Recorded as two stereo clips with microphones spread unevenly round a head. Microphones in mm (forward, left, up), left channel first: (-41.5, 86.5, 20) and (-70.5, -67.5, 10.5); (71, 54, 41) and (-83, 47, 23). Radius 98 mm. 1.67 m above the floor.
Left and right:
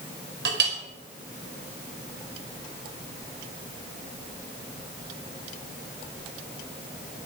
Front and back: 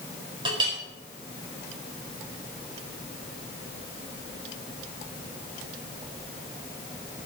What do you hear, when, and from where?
0.5 s a clink: 110° right, 4.5 m